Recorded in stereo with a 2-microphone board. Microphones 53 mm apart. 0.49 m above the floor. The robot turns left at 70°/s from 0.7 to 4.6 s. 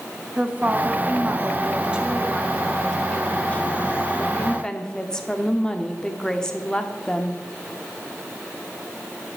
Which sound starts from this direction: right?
A woman speaking, at 0.4 s.